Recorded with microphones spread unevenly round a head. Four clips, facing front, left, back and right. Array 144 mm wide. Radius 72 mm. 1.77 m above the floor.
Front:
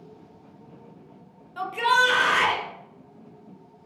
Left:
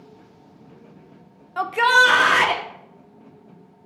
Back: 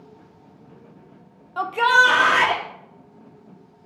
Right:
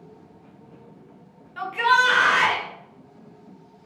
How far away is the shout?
About 0.7 m.